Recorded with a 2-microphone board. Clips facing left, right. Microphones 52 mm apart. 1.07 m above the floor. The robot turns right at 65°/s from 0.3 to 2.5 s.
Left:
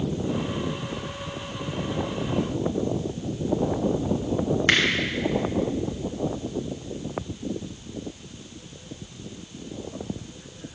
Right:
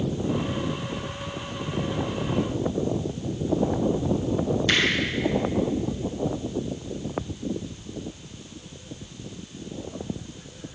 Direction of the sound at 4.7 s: 45° left (ahead or behind).